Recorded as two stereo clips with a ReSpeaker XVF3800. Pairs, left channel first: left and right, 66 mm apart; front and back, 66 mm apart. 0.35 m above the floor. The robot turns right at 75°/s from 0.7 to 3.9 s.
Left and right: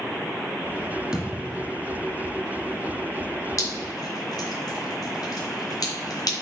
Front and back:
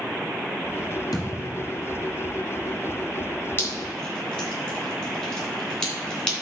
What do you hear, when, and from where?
1.1 s a thud: 10° right, 2.5 m; by 1.8 s 35° left, 2.5 m
3.6 s dripping: 50° left, 3 m; by 6.3 s 75° left, 3 m